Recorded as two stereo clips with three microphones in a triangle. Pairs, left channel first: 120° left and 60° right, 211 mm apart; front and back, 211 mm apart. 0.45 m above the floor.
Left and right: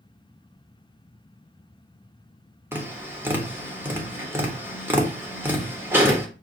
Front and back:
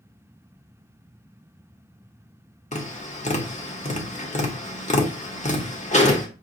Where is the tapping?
10° left, 0.9 m.